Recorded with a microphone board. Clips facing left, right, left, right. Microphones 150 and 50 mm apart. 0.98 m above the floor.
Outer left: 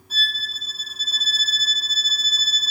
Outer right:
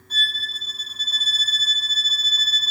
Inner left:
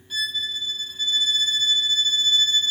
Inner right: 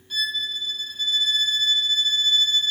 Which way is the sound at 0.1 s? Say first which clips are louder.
Even, inner right 1 dB; 5° left (ahead or behind).